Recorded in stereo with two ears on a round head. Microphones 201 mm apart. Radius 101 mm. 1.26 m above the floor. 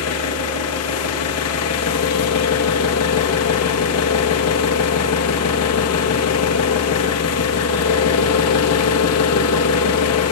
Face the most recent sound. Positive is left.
turn(degrees=80)